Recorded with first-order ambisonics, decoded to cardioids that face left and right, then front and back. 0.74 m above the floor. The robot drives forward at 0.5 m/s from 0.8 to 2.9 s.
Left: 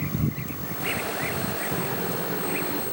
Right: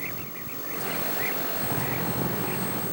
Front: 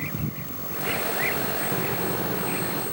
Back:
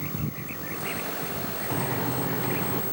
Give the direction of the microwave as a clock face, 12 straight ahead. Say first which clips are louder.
Left 1 dB, front 2 dB; 5 o'clock.